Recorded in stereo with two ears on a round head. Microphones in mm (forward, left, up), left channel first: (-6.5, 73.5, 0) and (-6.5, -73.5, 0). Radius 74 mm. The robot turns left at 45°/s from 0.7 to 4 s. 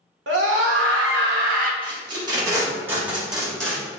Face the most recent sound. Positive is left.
turn(degrees=10)  # may be behind; listen again after turning